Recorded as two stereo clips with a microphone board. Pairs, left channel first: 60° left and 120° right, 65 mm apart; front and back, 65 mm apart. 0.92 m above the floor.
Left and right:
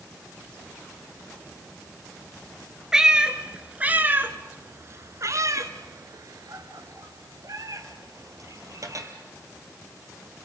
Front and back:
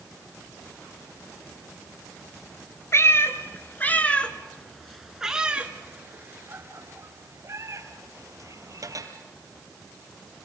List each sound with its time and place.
2.9 s a cat meowing: 45° right, 1.8 m; by 9.1 s 155° right, 3 m